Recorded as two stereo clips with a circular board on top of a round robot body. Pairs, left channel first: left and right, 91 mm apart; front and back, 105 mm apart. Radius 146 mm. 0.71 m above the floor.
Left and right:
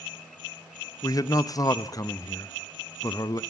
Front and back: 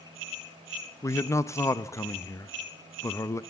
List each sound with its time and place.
1.0 s a man speaking: 55° left, 0.9 m